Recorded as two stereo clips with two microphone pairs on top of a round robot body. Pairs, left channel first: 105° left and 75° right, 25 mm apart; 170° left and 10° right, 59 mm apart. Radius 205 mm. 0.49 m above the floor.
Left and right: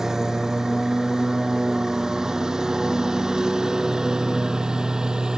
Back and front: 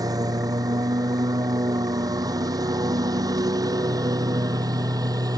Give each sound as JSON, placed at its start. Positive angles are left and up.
{"t": 0.0, "sound": "a lawn mower", "azimuth_deg": -5}